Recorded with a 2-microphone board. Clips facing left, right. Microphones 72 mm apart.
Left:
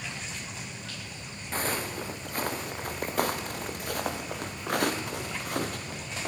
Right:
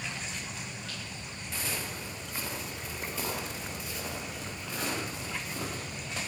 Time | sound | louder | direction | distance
1.5 | footsteps | left 7 dB | 45° left (ahead or behind) | 3 m